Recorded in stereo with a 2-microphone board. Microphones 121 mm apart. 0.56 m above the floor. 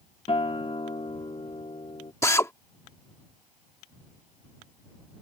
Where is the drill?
20° left (ahead or behind).